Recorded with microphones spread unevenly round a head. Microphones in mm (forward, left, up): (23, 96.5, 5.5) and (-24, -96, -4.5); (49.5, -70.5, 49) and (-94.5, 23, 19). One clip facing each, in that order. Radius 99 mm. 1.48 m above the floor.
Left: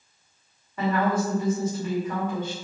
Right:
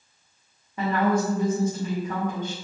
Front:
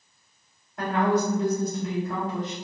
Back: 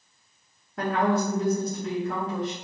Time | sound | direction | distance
0.8 | a woman speaking | straight behind | 1.8 m